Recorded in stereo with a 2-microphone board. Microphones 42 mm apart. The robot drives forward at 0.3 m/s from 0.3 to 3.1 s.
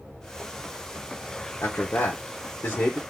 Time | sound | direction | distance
1.6 | a man speaking | 80° left | 0.9 m